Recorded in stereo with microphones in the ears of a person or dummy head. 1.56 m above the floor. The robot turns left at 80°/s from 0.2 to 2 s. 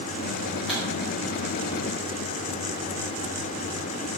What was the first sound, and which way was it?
A pop, centre (ahead or behind).